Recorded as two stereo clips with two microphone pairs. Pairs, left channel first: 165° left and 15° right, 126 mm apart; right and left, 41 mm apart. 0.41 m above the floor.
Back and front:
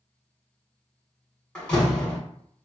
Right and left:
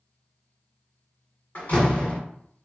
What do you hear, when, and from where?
1.6 s a door slam: 120° right, 1.4 m